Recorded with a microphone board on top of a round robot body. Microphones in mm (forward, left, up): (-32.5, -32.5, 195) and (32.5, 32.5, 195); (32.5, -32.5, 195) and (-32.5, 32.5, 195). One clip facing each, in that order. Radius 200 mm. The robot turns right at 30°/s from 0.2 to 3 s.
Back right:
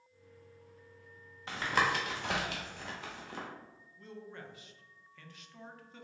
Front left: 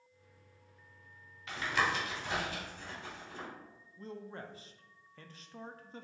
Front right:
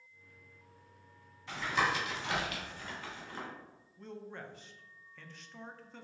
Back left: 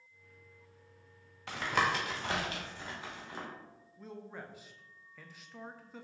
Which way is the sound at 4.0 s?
55° left.